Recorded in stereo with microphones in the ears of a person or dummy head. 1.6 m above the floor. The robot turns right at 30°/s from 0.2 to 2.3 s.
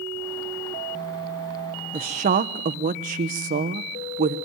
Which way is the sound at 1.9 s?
30° right (ahead or behind).